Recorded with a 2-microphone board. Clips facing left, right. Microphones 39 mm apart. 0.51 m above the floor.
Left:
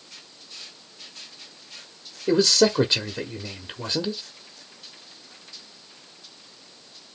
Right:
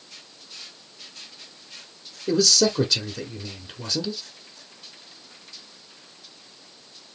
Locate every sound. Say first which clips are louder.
2.3 s a man speaking: left 2 dB; 30° left (ahead or behind), 1.0 m